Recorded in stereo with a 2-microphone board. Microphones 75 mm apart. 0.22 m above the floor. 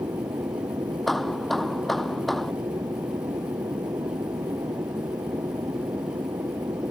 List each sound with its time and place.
0.0 s an aircraft: 65° right (ahead or behind)
1.1 s hammering: centre (ahead or behind)